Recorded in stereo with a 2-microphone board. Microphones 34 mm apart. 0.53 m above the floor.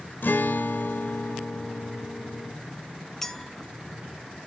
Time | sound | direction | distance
0.2 | a guitar | 70° left (ahead or behind) | 0.6 m
3.2 | a clink | 10° left (ahead or behind) | 0.5 m